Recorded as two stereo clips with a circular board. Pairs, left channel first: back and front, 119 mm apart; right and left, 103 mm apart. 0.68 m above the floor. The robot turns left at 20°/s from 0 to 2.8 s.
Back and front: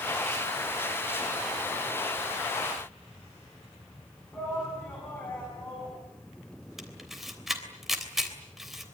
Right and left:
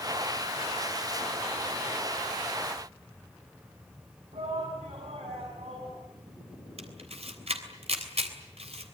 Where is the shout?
100° left, 6 m.